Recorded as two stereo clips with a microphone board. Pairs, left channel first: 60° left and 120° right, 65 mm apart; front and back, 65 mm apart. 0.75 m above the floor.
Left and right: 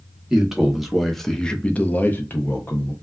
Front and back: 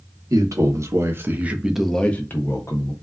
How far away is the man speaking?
About 0.9 m.